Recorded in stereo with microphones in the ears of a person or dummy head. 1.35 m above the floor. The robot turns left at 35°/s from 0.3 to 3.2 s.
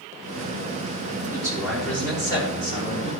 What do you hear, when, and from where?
1.2 s a man speaking: 160° right, 6 m; by 3.1 s 135° left, 6 m